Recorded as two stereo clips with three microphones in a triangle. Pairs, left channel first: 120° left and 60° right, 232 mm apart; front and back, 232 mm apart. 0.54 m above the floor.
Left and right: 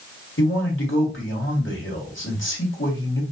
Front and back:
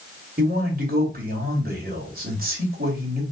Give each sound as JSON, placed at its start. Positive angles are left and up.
{"t": 0.4, "sound": "a man speaking", "azimuth_deg": 135, "distance_m": 2.0}